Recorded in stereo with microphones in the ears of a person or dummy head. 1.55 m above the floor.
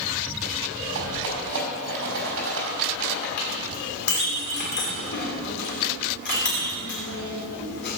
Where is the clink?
55° left (ahead or behind), 3 m.